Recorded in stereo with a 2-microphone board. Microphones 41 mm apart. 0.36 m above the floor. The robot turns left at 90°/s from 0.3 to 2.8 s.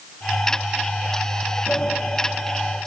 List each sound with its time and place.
1.7 s a sliding door: 35° left (ahead or behind), 2.5 m; by 2.0 s 10° left (ahead or behind), 2.5 m